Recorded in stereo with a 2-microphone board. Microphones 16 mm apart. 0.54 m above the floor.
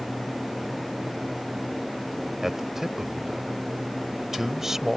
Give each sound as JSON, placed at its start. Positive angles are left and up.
{"t": 2.4, "sound": "a man speaking", "side_deg": -20}